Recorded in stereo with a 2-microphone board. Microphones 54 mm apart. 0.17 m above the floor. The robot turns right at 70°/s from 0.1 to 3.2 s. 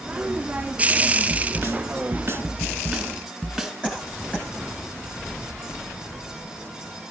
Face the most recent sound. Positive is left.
turn(degrees=20)  # may be behind; listen again after turning